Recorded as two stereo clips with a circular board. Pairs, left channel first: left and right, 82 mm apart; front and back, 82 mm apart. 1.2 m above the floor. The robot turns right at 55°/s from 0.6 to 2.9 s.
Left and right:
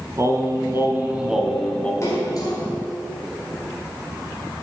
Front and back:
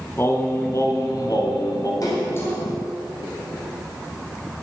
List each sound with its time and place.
0.2 s singing: 50° right, 1.7 m; by 1.9 s 25° left, 1.7 m
2.0 s a splash: 40° left, 4.5 m; by 2.6 s 70° left, 4.5 m